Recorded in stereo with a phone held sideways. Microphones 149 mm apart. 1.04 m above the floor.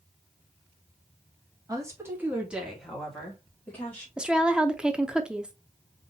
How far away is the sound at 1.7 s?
About 1.6 m.